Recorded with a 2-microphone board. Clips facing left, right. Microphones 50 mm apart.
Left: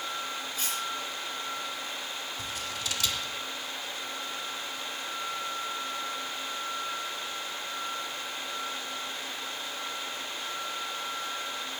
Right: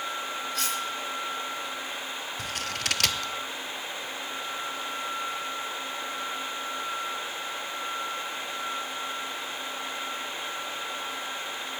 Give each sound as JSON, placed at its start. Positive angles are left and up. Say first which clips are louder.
{"t": 0.6, "sound": "cutlery clinking", "louder": "right 6 dB", "side_deg": -65, "distance_m": 4.0}
{"t": 2.4, "sound": "scissors", "louder": "right 6 dB", "side_deg": -60, "distance_m": 0.6}